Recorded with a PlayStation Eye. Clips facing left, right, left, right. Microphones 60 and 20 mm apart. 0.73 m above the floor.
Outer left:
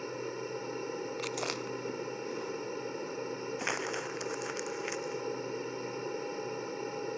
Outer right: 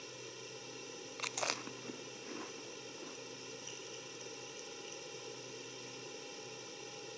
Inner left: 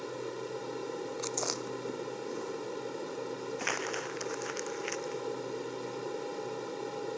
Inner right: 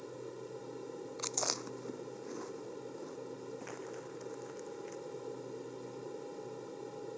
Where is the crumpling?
85° left.